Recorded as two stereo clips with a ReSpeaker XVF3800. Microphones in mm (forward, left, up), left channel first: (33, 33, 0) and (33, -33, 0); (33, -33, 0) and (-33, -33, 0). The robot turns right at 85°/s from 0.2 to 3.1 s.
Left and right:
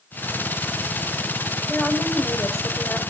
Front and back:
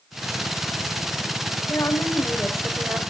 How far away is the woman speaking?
About 2.5 m.